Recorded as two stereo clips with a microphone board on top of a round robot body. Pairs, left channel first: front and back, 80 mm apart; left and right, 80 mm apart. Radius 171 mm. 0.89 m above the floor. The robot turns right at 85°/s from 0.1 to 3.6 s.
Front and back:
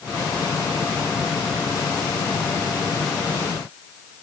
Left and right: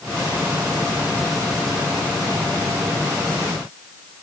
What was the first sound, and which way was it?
Only background noise.